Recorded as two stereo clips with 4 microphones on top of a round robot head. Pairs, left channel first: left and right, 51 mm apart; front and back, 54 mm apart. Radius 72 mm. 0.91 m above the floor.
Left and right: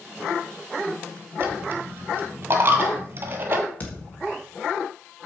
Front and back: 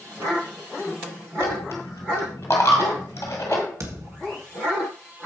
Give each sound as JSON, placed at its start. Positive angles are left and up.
{"t": 1.4, "sound": "a dropped coin", "azimuth_deg": -55, "distance_m": 1.1}
{"t": 3.8, "sound": "a thud", "azimuth_deg": 150, "distance_m": 1.7}